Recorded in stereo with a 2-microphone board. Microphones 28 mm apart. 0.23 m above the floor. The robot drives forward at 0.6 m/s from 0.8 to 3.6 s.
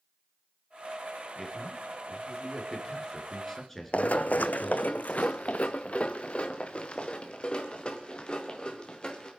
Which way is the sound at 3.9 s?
60° left (ahead or behind).